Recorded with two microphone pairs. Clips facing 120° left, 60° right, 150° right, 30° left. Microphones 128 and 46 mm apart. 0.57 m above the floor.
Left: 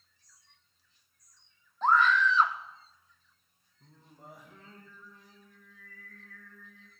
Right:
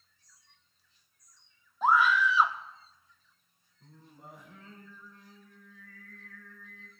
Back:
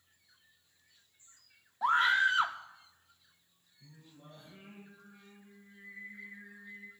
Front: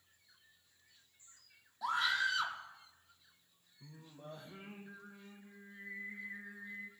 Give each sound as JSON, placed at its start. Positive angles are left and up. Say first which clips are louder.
{"t": 1.8, "sound": "a scream", "louder": "even, back 7 dB", "azimuth_deg": -140, "distance_m": 1.1}
{"t": 3.8, "sound": "singing", "louder": "right 1 dB, front 4 dB", "azimuth_deg": 40, "distance_m": 5.0}